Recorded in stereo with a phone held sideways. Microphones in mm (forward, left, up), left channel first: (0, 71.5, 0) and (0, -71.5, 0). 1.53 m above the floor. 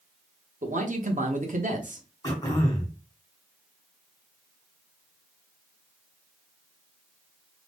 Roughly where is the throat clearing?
Left.